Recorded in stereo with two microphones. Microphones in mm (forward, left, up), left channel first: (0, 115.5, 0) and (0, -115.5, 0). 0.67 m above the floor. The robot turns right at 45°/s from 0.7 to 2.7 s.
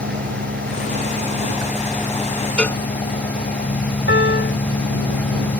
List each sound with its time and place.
0.0 s an engine running: 55° right; by 5.6 s 35° left
2.6 s a cowbell: 5° left (ahead or behind); by 2.8 s 10° left (ahead or behind)
4.1 s a piano: 55° left (ahead or behind)